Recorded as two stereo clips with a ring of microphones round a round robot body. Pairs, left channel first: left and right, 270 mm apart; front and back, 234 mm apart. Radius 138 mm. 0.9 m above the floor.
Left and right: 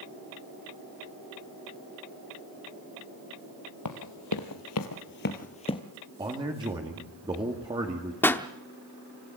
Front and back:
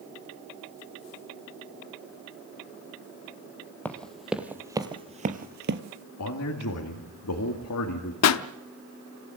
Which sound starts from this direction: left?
Running footsteps, at 3.9 s.